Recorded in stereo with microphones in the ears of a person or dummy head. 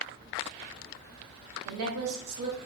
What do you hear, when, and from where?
1.6 s a woman speaking: 80° right, 0.7 m